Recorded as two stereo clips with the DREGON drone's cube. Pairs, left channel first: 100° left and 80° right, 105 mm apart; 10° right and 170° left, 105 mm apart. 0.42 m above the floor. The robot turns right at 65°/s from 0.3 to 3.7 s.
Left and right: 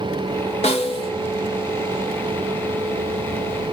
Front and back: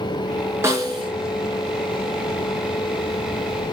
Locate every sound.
0.6 s a snare drum: 105° left, 1.7 m; by 1.1 s 135° left, 1.7 m